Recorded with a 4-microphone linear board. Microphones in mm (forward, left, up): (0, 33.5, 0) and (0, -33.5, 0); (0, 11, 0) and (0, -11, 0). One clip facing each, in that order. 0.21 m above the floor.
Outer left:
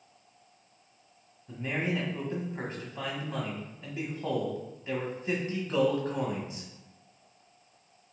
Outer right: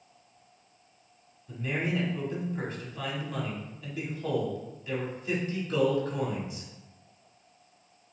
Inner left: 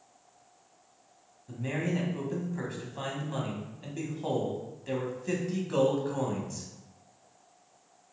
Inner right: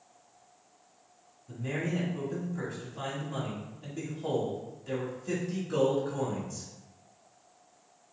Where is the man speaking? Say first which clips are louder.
Outer right 1 dB, inner left 1 dB; 30° left (ahead or behind), 1.1 m.